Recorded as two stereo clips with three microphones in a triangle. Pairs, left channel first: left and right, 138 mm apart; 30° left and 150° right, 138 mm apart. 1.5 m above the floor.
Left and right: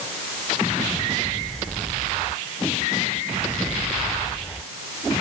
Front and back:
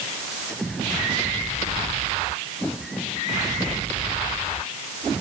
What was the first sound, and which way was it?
Only background noise.